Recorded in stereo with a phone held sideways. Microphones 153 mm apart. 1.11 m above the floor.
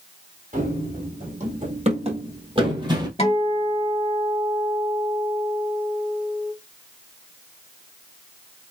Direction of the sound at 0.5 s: 60° right (ahead or behind).